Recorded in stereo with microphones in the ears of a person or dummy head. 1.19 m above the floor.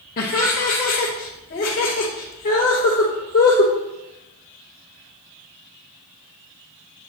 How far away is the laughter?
About 0.6 m.